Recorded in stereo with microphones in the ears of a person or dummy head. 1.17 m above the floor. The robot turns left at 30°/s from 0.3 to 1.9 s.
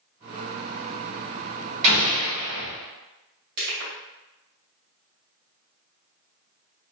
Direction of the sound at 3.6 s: 50° right (ahead or behind).